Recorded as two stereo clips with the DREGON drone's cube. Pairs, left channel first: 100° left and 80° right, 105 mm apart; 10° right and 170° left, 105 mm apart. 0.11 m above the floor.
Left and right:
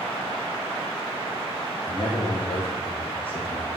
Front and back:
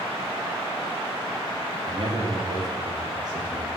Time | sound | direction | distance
1.9 | a man speaking | 130° left | 3 m